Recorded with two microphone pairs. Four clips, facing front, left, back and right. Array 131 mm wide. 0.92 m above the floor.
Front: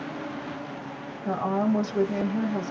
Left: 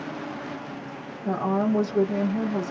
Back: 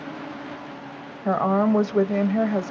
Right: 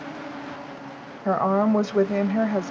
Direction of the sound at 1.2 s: 130° right.